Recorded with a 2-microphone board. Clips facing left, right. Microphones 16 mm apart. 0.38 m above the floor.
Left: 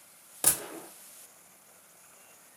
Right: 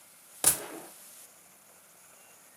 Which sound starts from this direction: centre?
A gunshot, at 0.4 s.